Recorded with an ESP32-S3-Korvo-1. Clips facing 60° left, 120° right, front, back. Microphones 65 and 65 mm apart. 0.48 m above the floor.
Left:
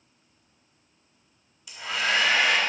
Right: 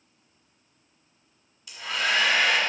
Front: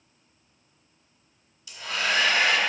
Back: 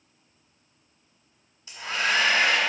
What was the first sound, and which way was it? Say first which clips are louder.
A hair dryer: even, back 2 dB; 150° left.